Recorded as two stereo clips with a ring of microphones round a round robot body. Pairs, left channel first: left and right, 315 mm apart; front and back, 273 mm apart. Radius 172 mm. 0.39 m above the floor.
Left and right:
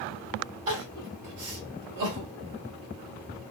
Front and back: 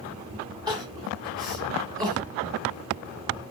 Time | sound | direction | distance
0.7 | crying | 105° right | 1.2 m